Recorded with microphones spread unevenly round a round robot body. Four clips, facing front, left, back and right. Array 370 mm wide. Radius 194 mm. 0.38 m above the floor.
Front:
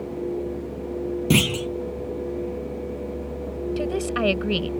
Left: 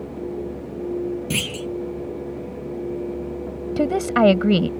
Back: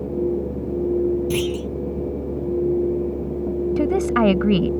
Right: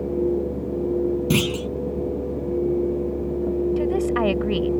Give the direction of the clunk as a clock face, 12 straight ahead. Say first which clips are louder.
Right 6 dB, even; 1 o'clock.